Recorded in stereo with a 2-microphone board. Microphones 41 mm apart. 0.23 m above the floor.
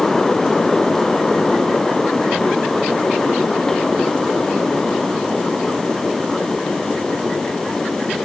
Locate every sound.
Only background noise.